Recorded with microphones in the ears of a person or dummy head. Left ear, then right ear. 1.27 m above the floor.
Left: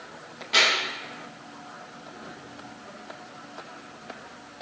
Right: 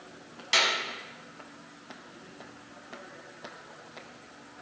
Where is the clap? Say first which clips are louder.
Left 4 dB; 75° right (ahead or behind), 7 m.